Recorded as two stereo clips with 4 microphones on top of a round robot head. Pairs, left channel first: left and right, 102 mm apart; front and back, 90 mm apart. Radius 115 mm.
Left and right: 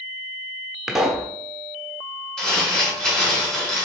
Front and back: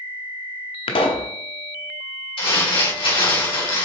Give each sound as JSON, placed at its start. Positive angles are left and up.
{"t": 0.9, "sound": "a pop", "azimuth_deg": -5, "distance_m": 0.8}
{"t": 2.4, "sound": "crumpling", "azimuth_deg": 5, "distance_m": 3.0}